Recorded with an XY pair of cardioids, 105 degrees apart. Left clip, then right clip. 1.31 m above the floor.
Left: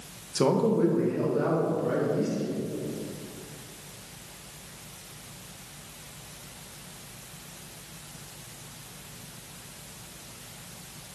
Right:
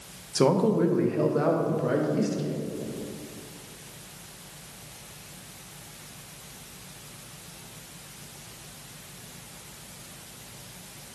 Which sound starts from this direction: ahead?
A man speaking, at 0.3 s.